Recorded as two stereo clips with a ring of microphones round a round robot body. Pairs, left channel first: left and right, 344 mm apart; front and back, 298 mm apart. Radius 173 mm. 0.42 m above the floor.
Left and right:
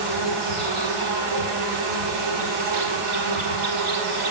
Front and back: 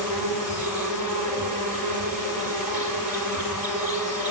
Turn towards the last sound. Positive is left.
turn(degrees=-90)